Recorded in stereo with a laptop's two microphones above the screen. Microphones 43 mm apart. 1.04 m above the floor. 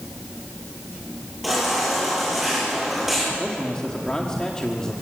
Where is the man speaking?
15° left (ahead or behind), 1.8 m.